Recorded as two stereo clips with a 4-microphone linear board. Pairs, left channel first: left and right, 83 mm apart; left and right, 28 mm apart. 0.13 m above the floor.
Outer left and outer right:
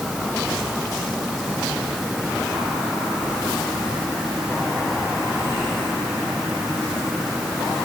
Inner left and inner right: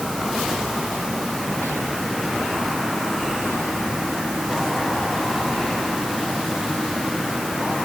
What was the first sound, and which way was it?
Only background noise.